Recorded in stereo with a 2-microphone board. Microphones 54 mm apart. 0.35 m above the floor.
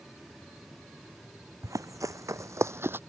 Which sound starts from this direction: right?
Running footsteps, at 1.6 s.